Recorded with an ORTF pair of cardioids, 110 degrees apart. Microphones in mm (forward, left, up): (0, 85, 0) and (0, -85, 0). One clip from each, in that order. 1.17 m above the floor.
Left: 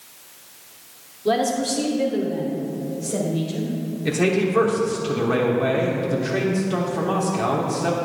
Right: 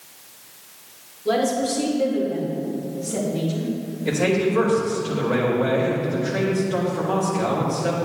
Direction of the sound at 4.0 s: 60° left.